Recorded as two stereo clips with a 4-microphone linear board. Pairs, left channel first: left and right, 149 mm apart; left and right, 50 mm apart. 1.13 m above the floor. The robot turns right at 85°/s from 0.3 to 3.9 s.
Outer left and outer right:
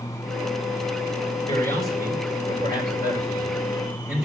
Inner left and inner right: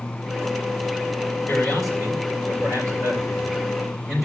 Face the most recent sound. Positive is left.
turn(degrees=-5)